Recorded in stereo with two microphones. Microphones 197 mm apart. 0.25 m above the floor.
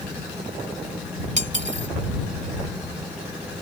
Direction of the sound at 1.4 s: 40° right (ahead or behind).